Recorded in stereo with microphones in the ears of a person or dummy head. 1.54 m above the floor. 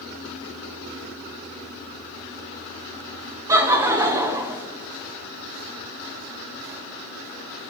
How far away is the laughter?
About 1.0 m.